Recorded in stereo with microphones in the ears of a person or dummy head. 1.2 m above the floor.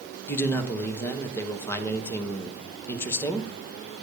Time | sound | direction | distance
0.3 | a man speaking | 15° left (ahead or behind) | 0.7 m